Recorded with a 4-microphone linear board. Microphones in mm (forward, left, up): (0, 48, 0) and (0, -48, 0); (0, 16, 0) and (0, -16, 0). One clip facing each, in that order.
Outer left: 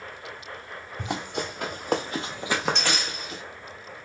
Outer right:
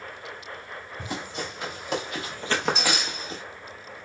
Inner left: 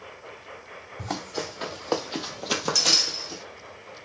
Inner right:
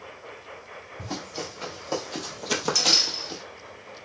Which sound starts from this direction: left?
Running footsteps, at 1.0 s.